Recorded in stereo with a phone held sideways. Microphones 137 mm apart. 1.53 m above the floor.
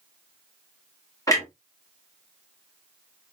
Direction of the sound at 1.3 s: 25° left (ahead or behind).